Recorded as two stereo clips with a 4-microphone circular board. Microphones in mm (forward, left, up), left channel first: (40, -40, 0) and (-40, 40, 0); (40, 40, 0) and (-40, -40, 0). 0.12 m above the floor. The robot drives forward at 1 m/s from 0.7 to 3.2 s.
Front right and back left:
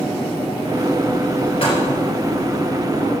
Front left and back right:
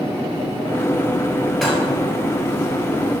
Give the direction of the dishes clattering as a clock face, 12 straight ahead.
1 o'clock.